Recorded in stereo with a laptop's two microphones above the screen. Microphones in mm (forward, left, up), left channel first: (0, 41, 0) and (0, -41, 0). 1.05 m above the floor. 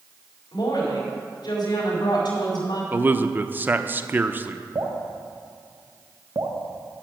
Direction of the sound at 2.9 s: 25° right (ahead or behind).